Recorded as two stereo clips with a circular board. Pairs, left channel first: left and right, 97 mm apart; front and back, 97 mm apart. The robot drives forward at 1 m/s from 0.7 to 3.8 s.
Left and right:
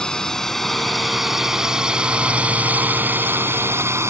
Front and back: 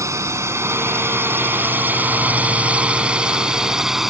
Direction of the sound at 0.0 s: 165° left.